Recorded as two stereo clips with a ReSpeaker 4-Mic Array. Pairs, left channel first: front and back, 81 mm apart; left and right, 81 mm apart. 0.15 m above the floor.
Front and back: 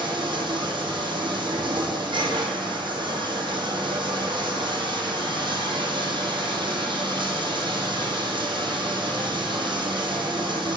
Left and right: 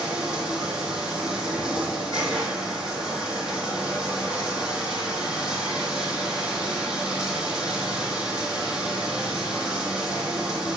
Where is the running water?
170° right, 2.0 m.